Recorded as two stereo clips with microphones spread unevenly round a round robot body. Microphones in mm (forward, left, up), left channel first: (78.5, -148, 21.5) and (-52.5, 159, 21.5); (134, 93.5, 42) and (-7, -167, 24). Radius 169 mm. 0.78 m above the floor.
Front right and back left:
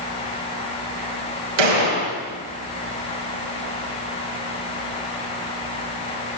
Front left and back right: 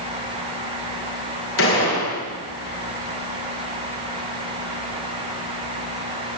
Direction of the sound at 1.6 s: 115° left.